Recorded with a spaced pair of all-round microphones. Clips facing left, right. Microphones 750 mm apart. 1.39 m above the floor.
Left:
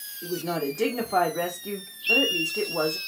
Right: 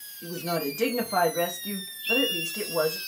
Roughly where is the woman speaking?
Centre.